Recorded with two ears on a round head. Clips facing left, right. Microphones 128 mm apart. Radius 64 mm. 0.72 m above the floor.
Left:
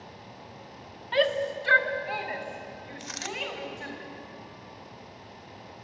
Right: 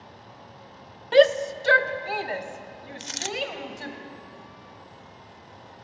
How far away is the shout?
About 1.0 m.